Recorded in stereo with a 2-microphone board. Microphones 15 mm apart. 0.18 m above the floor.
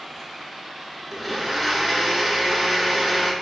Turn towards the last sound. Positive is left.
turn(degrees=5)  # may be behind; listen again after turning